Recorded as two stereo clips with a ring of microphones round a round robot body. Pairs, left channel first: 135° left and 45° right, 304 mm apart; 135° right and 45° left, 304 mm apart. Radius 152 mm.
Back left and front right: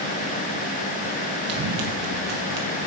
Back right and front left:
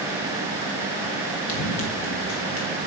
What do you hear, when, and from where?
1.5 s running footsteps: 85° right, 3 m